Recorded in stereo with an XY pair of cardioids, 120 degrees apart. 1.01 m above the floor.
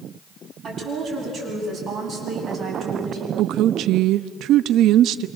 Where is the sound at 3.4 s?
70° right, 1.0 m.